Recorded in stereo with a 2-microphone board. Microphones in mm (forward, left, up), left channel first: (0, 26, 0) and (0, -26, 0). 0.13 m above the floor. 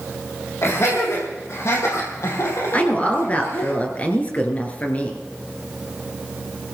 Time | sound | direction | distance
0.6 | laughter | 65° left (ahead or behind) | 6 m
2.7 | a woman speaking | 30° left (ahead or behind) | 2.5 m